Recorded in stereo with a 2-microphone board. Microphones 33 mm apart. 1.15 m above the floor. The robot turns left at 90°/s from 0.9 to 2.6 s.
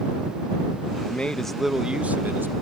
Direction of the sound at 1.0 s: 50° left.